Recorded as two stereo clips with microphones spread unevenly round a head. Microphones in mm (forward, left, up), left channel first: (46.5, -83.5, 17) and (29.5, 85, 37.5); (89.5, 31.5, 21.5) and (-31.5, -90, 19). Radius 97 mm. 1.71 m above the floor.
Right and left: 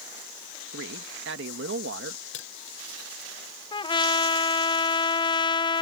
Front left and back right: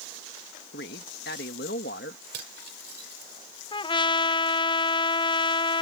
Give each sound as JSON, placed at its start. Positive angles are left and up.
{"t": 0.7, "sound": "a man speaking", "azimuth_deg": 85}
{"t": 2.3, "sound": "cutlery clinking", "azimuth_deg": -120}
{"t": 3.7, "sound": "a trumpet", "azimuth_deg": -20}